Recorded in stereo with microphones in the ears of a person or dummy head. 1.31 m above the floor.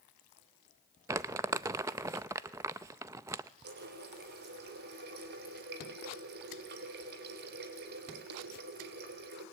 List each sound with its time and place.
1.1 s crumpling: 15° right (ahead or behind), 0.5 m
3.6 s a running tap: 55° right (ahead or behind), 3 m